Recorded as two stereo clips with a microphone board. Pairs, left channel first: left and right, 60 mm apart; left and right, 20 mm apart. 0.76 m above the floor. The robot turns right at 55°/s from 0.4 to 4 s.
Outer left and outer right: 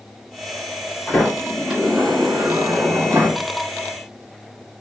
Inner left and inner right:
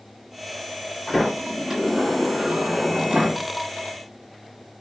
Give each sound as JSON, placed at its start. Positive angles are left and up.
{"t": 1.1, "sound": "a sliding door", "azimuth_deg": 160, "distance_m": 3.5}